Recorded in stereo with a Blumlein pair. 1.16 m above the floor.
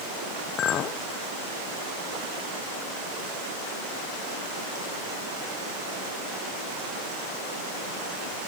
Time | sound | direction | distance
0.6 | a clink | 30° left | 0.7 m